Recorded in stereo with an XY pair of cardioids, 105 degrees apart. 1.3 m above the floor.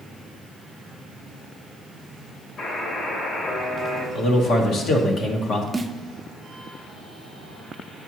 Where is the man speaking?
65° left, 1.2 m.